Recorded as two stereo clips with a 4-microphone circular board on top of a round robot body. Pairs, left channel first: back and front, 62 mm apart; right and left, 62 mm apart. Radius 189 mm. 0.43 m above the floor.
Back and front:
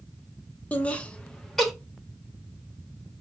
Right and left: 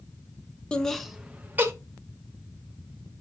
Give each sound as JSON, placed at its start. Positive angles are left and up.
{"t": 0.7, "sound": "laughter", "azimuth_deg": -145, "distance_m": 0.9}